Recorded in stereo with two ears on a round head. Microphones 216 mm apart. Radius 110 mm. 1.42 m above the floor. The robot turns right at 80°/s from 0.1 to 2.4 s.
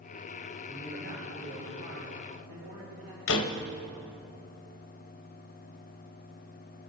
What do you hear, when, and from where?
0.7 s a man speaking: 175° right, 3 m; by 3.2 s 35° right, 3 m
3.3 s a door slam: 55° left (ahead or behind), 0.9 m